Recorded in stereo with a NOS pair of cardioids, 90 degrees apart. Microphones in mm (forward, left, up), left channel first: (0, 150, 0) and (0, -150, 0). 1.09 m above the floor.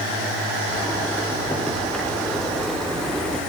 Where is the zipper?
5° left, 4 m.